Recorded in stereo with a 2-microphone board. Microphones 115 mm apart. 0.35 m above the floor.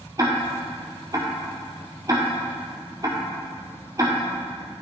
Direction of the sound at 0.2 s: 35° right (ahead or behind).